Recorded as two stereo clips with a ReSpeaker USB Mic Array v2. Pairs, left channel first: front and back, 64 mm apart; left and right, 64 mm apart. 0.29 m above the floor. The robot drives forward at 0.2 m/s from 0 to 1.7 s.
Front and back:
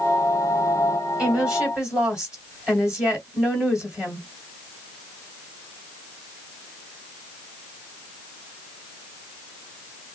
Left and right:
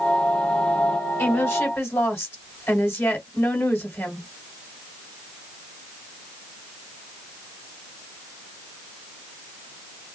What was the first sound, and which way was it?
A woman speaking, 115° left.